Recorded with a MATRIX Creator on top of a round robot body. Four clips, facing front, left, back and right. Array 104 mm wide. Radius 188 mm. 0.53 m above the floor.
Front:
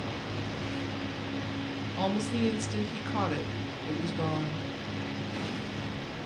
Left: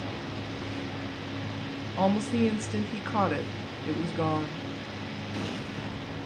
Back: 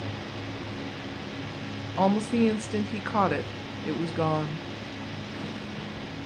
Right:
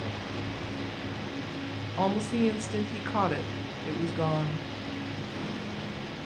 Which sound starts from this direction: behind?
A woman speaking, at 2.0 s.